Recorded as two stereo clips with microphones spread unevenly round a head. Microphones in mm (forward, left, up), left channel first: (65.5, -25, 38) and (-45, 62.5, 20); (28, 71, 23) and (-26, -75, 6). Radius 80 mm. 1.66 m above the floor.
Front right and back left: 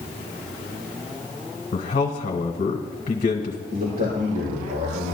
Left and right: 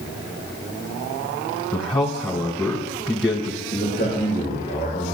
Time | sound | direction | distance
1.7 | a man speaking | straight ahead | 1.5 m
3.7 | a man speaking | 120° left | 6 m